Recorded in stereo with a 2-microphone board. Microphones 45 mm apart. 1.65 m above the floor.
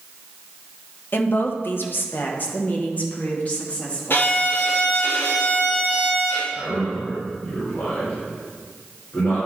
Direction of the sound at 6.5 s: 70° left (ahead or behind).